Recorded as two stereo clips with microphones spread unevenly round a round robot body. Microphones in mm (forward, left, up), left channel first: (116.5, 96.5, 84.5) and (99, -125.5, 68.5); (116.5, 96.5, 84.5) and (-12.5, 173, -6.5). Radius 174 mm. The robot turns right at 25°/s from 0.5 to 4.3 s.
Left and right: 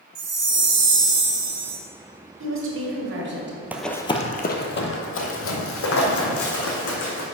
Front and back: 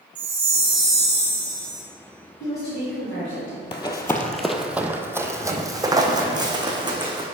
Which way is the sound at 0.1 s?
145° right.